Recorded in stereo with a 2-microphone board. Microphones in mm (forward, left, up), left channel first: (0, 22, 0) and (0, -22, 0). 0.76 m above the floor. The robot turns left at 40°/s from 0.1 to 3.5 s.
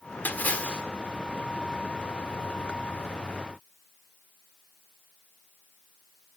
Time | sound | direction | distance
0.2 | a splash | 45° left (ahead or behind) | 1.9 m